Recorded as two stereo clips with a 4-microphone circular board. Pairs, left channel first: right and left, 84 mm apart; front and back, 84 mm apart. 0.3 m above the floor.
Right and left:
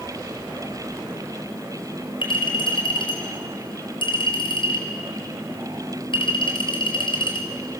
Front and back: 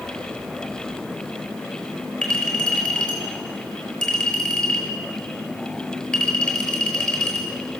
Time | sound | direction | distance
2.2 | a clink | 80° right | 5 m